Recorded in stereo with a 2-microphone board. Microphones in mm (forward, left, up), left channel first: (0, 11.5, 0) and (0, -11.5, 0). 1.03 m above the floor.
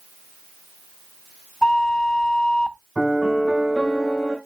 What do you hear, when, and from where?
1.6 s a flute: 30° left (ahead or behind), 0.5 m
3.0 s a piano: 10° right (ahead or behind), 3 m